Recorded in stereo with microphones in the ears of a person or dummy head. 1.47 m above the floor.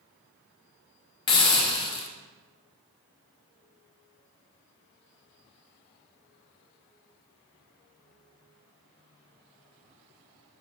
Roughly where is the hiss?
Left.